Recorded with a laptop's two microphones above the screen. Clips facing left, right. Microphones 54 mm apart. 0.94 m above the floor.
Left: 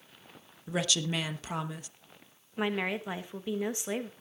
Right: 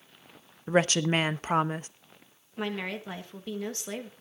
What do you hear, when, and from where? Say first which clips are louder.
0.7 s a woman speaking: right 7 dB; 40° right (ahead or behind), 0.8 m
2.6 s a woman speaking: left 2 dB; 15° left (ahead or behind), 1.3 m